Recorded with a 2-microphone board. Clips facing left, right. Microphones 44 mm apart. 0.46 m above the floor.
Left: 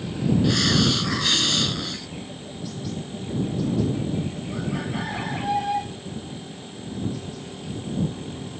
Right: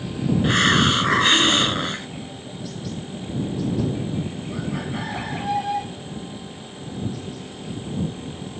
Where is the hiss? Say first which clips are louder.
Right 7 dB; 35° right (ahead or behind).